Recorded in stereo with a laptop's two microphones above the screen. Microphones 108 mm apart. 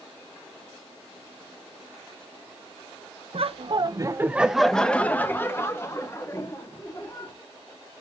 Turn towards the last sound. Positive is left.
turn(degrees=35)  # may be behind; listen again after turning